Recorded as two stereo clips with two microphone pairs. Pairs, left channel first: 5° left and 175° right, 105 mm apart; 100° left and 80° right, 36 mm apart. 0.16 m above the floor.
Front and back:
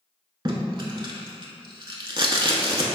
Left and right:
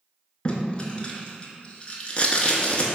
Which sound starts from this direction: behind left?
Tape being pulled, at 0.5 s.